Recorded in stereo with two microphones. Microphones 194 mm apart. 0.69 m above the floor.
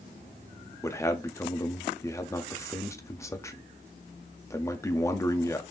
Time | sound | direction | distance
0.8 | a man speaking | 15° left (ahead or behind) | 0.7 m